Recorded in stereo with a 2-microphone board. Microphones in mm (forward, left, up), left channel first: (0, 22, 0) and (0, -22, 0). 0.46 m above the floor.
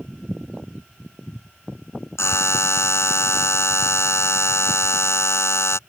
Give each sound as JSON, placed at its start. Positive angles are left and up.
{"t": 2.2, "sound": "a buzzer", "side_deg": 80}